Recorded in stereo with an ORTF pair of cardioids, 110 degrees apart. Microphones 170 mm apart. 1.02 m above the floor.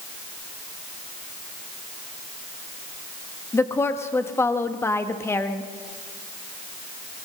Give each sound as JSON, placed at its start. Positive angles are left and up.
{"t": 3.5, "sound": "a woman speaking", "azimuth_deg": 15, "distance_m": 1.0}